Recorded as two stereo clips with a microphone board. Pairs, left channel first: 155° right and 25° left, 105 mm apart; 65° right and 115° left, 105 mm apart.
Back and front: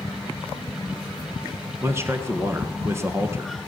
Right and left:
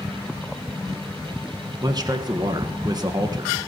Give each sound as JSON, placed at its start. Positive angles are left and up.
{"t": 1.8, "sound": "a man speaking", "azimuth_deg": 80, "distance_m": 1.6}